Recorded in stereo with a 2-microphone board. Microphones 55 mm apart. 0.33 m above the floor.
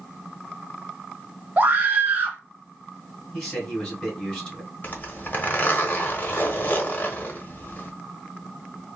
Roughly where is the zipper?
Left.